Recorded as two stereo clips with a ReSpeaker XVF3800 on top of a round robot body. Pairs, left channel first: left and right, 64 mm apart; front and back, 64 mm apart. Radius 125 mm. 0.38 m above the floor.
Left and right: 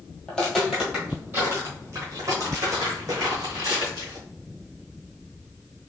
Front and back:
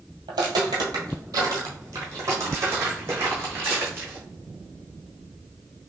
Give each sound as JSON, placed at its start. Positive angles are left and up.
{"t": 0.3, "sound": "footsteps", "azimuth_deg": 170, "distance_m": 0.8}